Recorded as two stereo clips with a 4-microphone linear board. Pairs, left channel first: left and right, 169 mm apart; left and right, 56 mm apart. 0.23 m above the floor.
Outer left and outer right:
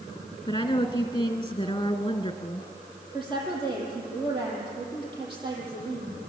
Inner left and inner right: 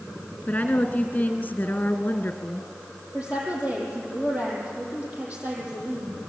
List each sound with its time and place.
0.5 s a woman speaking: 30° left (ahead or behind), 2 m
3.1 s a woman speaking: 30° right (ahead or behind), 9.5 m